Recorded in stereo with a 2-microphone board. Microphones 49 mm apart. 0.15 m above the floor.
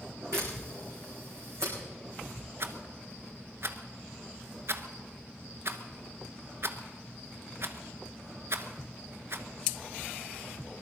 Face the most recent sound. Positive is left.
turn(degrees=-55)  # may be behind; listen again after turning